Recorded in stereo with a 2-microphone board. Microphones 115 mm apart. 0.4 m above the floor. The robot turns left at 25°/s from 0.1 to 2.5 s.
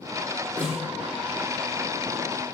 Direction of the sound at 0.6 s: 10° right (ahead or behind).